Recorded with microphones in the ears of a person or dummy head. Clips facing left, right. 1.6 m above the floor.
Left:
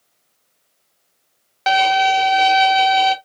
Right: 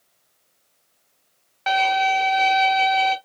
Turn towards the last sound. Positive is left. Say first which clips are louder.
# left 5 dB
turn(degrees=55)  # may be behind; listen again after turning